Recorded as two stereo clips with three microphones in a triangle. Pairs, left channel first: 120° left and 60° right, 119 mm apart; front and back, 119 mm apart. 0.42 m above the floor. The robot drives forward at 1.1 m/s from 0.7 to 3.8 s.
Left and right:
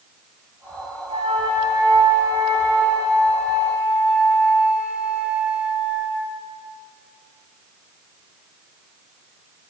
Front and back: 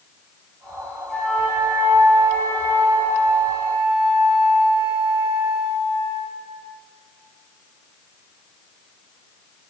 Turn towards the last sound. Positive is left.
turn(degrees=-145)